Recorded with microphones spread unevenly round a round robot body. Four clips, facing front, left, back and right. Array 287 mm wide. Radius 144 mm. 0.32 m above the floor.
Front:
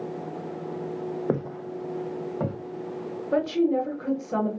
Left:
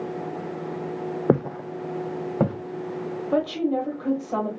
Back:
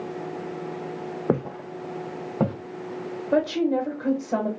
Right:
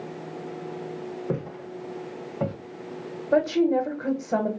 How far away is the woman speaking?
About 1.1 m.